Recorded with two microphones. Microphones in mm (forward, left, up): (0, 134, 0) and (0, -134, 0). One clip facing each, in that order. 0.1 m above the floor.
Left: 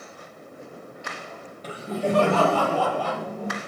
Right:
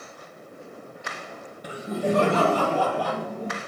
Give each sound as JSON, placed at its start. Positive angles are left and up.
{"t": 1.6, "sound": "laughter", "side_deg": -15, "distance_m": 1.8}